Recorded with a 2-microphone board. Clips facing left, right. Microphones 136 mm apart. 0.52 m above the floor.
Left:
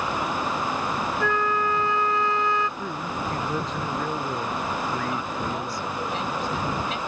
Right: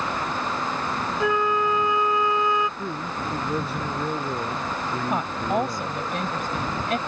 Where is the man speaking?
10° right (ahead or behind).